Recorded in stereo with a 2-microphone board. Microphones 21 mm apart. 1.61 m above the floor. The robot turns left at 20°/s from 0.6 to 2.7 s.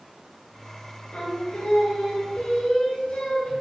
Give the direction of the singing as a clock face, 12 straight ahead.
9 o'clock.